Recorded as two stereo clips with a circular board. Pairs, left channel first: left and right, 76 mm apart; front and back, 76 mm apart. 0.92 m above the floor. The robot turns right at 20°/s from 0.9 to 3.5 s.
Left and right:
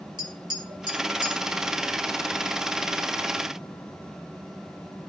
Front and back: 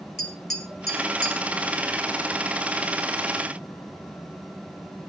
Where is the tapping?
90° right, 2.0 m; by 1.3 s 80° right, 2.0 m.